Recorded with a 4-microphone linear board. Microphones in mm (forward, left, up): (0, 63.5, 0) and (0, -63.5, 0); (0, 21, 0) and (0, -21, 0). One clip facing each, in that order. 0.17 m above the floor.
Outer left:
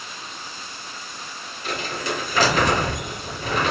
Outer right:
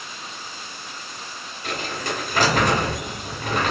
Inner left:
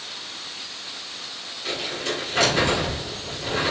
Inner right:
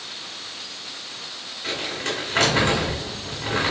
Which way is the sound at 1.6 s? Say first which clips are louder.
Outer left 1 dB, inner right 1 dB; 45° right (ahead or behind).